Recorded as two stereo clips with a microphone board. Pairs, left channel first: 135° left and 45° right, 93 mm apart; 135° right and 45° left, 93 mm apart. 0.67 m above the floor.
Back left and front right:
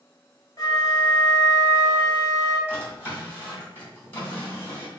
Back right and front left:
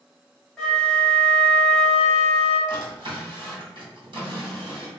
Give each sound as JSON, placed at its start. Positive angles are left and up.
{"t": 0.6, "sound": "a flute", "azimuth_deg": 145, "distance_m": 1.2}
{"t": 2.7, "sound": "a drawer", "azimuth_deg": 70, "distance_m": 1.6}